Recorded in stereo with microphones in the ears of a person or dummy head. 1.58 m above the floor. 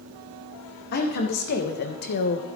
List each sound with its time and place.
0.9 s a woman speaking: 60° left (ahead or behind), 2 m; by 2.5 s 55° left (ahead or behind), 1.0 m